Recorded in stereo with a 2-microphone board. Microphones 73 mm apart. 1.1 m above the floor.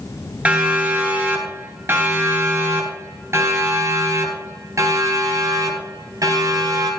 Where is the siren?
20° right (ahead or behind), 8 m; by 6.9 s 55° right (ahead or behind), 11 m.